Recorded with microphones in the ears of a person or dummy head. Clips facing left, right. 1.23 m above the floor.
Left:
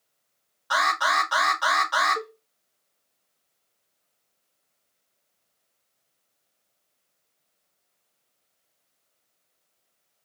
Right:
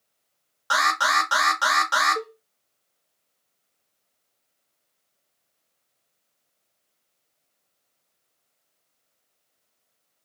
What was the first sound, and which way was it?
An alarm, 60° right (ahead or behind).